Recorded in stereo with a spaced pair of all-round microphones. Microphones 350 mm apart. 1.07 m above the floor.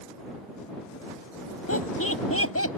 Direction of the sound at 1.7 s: 40° left (ahead or behind).